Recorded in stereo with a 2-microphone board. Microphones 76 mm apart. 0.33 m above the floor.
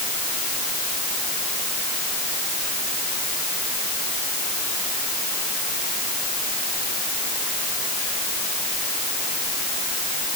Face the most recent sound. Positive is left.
No sound to turn to.